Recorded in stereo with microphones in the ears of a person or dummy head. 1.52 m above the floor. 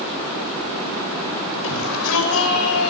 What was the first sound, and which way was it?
A shout, 70° left (ahead or behind).